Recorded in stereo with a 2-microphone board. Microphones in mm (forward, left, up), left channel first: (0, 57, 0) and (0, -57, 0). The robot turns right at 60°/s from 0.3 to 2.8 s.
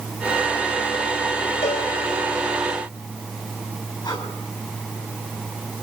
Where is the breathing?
45° left (ahead or behind), 8 m.